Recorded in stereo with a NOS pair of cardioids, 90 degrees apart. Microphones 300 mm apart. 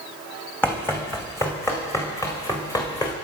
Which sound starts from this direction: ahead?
Running footsteps, at 0.6 s.